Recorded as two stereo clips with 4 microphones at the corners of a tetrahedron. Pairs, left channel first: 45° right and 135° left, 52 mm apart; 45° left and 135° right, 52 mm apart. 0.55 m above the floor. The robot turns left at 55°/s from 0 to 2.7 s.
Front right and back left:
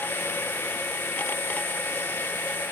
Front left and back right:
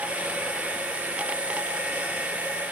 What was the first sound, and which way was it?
Only background noise.